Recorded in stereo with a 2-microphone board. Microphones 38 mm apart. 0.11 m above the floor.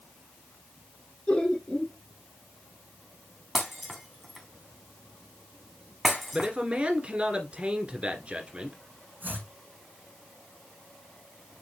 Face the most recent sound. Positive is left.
turn(degrees=-60)  # may be behind; listen again after turning